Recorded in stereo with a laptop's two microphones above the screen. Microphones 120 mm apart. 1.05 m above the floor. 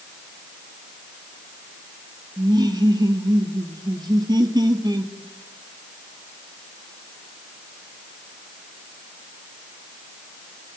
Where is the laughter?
30° right (ahead or behind), 2.5 m.